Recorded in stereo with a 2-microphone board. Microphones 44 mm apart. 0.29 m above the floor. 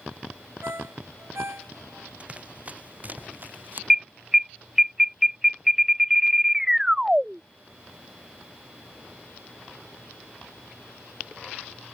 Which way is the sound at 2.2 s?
30° right (ahead or behind).